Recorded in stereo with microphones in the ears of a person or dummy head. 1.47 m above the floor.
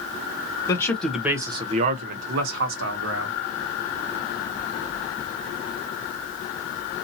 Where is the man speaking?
25° left (ahead or behind), 0.7 m; by 3.3 s 75° right (ahead or behind), 1.3 m.